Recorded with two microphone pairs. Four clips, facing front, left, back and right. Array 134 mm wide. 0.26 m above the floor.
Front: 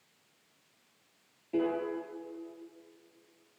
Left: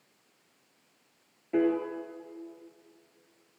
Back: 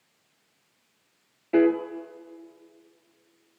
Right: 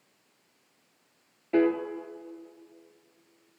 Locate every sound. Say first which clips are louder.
1.5 s a piano: right 2 dB, back 10 dB; 160° right, 2 m